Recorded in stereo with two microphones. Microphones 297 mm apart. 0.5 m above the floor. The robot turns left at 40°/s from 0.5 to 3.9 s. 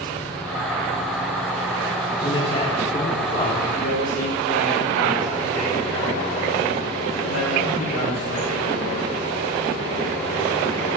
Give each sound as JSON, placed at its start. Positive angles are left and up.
{"t": 2.2, "sound": "a man speaking", "side_deg": 15, "distance_m": 1.4}
{"t": 3.8, "sound": "a man speaking", "side_deg": 60, "distance_m": 4.0}